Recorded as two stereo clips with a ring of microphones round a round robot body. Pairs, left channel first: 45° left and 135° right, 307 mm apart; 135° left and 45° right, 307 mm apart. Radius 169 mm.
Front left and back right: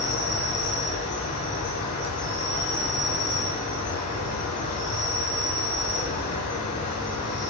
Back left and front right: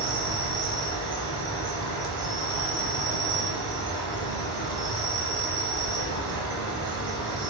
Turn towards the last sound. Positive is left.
turn(degrees=-20)